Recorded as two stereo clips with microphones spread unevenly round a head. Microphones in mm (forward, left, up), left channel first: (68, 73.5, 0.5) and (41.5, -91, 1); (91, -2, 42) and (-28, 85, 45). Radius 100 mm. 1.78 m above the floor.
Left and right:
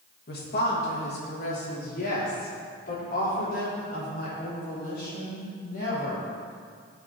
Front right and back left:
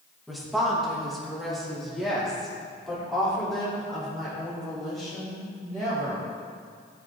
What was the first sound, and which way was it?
A woman speaking, 55° left.